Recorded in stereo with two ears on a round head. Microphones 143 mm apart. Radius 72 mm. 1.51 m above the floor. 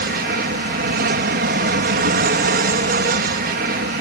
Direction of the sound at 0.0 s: 60° right (ahead or behind).